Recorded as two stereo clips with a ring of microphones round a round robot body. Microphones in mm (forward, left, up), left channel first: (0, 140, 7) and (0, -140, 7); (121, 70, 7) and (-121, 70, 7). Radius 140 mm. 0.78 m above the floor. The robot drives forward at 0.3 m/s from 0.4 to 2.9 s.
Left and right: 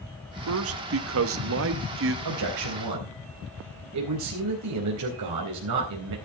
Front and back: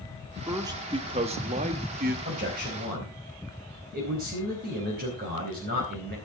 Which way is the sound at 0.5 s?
105° right.